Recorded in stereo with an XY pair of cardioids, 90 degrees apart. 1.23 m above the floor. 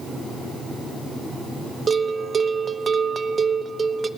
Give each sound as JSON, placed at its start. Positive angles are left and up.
{"t": 1.9, "sound": "a bell", "azimuth_deg": -45, "distance_m": 0.6}